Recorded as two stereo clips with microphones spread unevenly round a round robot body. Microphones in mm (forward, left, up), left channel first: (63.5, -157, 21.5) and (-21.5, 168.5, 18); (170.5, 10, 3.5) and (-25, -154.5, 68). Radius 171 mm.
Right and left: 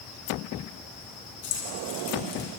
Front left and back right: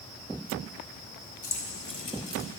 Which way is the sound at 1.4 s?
20° right.